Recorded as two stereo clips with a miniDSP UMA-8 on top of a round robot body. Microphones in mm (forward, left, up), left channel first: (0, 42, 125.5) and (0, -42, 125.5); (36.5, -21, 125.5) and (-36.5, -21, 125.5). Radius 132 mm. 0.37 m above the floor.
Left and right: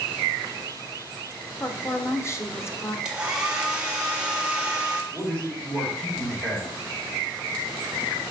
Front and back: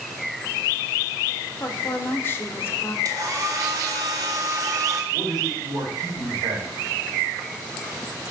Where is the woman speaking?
45° left, 1.1 m.